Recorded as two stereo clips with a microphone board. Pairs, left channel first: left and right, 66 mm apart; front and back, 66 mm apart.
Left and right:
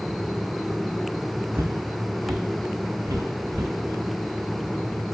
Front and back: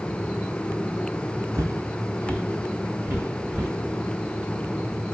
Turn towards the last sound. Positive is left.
turn(degrees=-120)